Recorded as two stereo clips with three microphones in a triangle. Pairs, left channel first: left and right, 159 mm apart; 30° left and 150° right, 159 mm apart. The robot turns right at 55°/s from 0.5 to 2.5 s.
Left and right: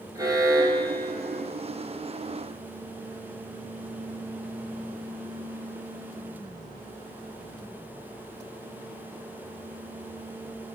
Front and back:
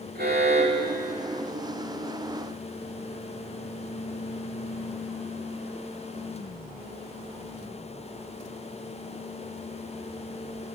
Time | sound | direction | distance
0.1 | an alarm | 160° right | 6 m